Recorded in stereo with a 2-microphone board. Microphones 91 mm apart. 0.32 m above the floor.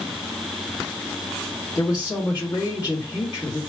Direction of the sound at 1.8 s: 50° left (ahead or behind).